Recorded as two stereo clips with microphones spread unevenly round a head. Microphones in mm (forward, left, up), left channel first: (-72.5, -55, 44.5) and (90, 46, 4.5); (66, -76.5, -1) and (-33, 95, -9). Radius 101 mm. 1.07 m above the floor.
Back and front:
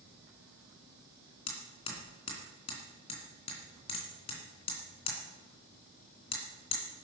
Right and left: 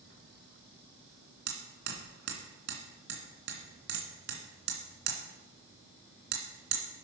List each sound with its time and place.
1.5 s hammering: 155° left, 2.5 m